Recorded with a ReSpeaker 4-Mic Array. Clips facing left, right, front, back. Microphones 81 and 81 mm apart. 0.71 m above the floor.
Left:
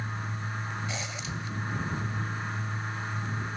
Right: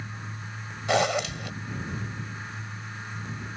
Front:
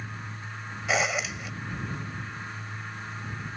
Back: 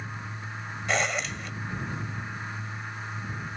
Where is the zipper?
85° right.